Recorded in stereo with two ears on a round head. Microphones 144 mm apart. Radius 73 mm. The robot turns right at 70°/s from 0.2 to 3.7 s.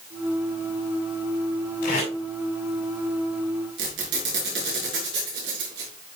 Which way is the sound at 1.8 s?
60° left (ahead or behind).